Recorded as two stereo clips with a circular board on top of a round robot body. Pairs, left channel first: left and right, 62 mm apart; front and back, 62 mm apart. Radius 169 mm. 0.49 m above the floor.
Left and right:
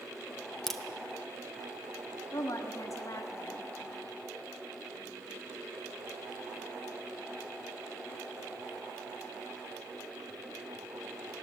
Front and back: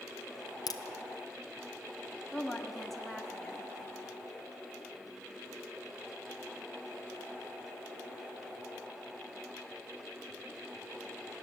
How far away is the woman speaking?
About 1.7 m.